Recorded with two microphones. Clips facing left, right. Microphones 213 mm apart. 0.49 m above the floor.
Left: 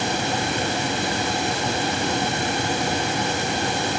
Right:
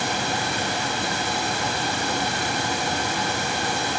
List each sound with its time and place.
Only background noise.